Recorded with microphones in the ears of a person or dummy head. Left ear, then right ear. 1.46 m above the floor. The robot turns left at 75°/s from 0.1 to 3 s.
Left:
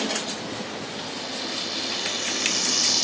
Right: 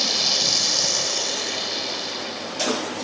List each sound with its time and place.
0.0 s running water: 50° right; by 3.0 s 90° left